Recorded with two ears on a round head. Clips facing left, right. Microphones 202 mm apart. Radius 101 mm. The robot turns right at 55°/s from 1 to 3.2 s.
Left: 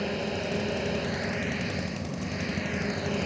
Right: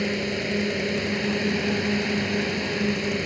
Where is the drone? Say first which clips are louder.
Right 4 dB; 150° right; by 3.3 s 30° right.